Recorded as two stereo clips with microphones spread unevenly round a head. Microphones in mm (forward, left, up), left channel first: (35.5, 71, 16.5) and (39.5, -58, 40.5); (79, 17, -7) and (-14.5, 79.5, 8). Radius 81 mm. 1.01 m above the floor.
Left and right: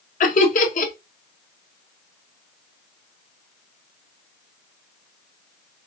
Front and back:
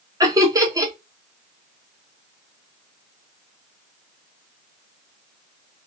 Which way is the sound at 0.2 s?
85° left.